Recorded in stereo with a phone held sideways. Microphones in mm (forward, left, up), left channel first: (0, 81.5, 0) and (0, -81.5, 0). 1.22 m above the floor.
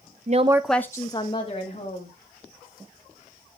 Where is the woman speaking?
55° right (ahead or behind), 0.6 m; by 2.2 s 40° left (ahead or behind), 2.5 m.